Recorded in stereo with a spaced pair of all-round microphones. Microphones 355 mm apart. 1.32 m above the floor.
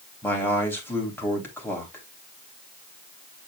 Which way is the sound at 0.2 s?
5° left (ahead or behind).